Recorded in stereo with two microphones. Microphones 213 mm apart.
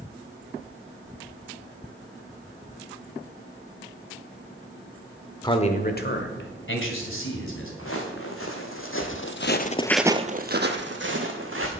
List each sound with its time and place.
5.4 s a man speaking: 20° left (ahead or behind), 1.1 m; by 7.7 s 75° left (ahead or behind), 3 m
7.8 s footsteps: 80° left, 3 m; by 11.7 s 70° right (ahead or behind), 2.5 m